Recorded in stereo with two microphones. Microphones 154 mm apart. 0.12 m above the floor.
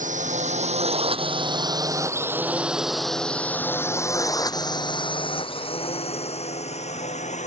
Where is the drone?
50° right (ahead or behind); by 7.5 s 45° left (ahead or behind).